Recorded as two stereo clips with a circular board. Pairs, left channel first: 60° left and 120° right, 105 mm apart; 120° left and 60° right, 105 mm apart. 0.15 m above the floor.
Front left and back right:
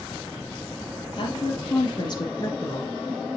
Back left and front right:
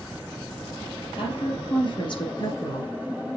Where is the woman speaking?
90° left, 3 m; by 3.0 s 110° left, 1.2 m.